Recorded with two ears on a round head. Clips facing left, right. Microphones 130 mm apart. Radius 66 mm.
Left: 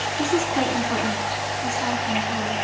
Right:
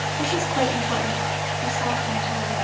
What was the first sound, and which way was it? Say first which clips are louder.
A woman speaking: left 1 dB; 10° left (ahead or behind).